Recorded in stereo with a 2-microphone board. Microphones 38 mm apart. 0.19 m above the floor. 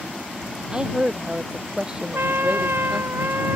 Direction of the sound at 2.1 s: 85° right.